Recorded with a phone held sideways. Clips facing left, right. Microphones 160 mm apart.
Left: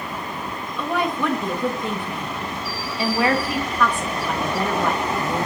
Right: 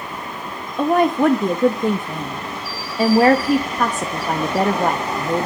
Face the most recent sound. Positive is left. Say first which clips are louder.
# right 8 dB
turn(degrees=-45)  # may be behind; listen again after turning